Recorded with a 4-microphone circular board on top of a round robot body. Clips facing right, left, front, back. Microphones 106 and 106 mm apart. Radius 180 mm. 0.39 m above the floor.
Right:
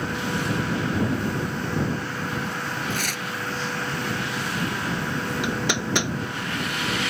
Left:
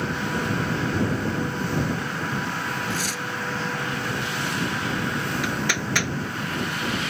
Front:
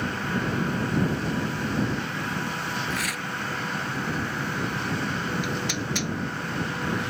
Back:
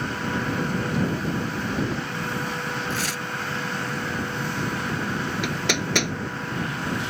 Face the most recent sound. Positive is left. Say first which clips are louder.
# right 1 dB, back 3 dB
turn(degrees=-160)